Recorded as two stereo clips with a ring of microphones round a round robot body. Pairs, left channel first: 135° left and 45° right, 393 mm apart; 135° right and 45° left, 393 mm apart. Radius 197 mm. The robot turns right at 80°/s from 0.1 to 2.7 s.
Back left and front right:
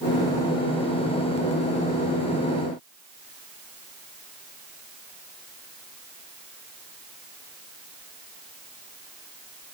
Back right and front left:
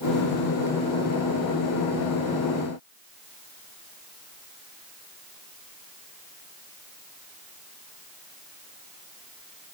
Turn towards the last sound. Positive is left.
No sound to turn to.